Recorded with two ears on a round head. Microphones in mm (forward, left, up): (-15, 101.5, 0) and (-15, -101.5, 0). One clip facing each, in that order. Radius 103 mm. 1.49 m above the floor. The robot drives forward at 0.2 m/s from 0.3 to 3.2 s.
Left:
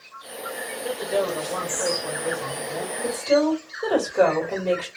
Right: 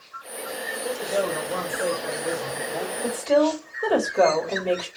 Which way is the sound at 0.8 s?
10° left (ahead or behind).